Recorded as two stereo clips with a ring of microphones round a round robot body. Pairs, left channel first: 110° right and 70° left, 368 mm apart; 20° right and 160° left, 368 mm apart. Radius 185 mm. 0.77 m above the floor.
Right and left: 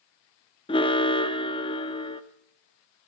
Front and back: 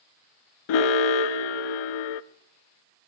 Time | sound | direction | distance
0.7 | an alarm | 35° right | 0.7 m